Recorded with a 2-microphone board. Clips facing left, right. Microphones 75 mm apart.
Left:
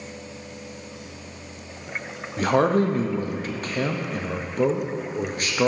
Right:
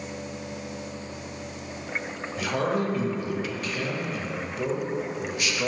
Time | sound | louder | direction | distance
2.4 | a man speaking | left 7 dB | 40° left (ahead or behind) | 0.5 m